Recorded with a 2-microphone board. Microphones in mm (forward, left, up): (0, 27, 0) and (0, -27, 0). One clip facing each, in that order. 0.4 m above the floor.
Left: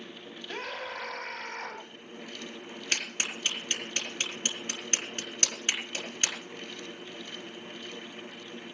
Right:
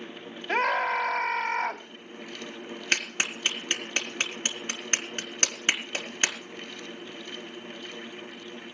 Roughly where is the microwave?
I don't hear a microwave.